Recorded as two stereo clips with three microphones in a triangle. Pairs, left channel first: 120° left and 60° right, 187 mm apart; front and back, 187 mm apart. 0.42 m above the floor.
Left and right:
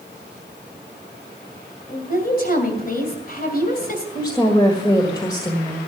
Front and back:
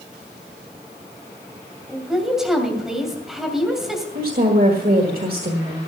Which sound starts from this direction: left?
A woman speaking, at 1.9 s.